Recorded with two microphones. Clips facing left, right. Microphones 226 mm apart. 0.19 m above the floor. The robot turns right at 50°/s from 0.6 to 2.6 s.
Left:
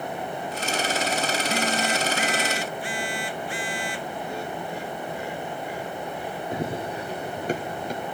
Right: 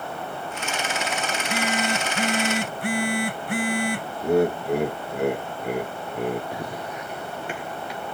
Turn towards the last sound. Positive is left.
turn(degrees=45)  # may be behind; listen again after turning